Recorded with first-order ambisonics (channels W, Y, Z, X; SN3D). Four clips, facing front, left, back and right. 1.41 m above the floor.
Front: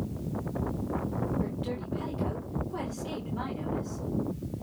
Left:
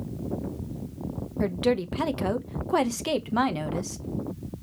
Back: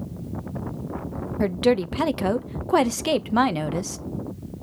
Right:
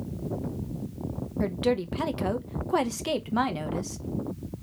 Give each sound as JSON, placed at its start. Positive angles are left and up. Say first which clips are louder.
{"t": 1.4, "sound": "a woman speaking", "louder": "left 2 dB, back 13 dB", "azimuth_deg": 170, "distance_m": 0.9}